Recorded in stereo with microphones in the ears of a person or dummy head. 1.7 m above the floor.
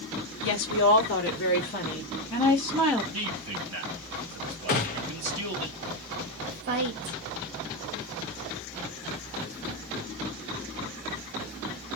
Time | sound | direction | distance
0.4 | a woman speaking | 70° left (ahead or behind) | 1.5 m
3.1 | a man speaking | 75° right (ahead or behind) | 1.7 m
4.7 | a gunshot | 40° left (ahead or behind) | 0.7 m
6.5 | a woman speaking | 60° right (ahead or behind) | 1.2 m